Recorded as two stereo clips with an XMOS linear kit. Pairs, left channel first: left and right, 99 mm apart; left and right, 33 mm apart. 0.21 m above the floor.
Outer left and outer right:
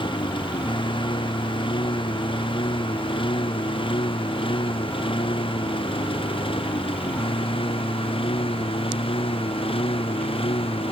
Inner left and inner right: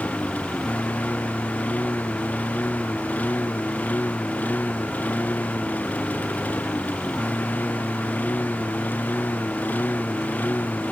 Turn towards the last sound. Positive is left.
turn(degrees=65)  # may be behind; listen again after turning